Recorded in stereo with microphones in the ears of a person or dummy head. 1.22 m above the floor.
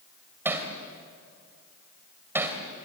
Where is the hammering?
10° right (ahead or behind), 2.5 m.